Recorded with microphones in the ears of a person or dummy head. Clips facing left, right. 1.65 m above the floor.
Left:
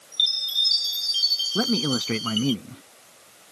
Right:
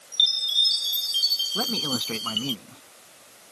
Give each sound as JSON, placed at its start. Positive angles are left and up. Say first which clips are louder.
{"t": 0.1, "sound": "a chime", "louder": "right 2 dB", "side_deg": 0}
{"t": 1.6, "sound": "a man speaking", "louder": "left 6 dB", "side_deg": 30}